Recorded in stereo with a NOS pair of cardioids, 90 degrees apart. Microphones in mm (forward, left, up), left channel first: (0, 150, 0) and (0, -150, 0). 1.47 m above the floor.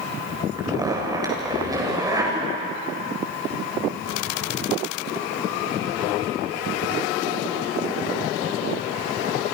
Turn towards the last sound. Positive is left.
turn(degrees=-10)